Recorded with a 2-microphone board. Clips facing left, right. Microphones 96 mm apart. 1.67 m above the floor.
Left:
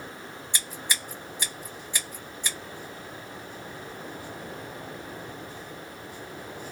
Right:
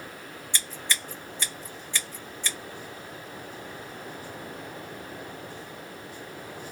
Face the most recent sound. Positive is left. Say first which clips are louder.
# right 1 dB
turn(degrees=15)  # may be behind; listen again after turning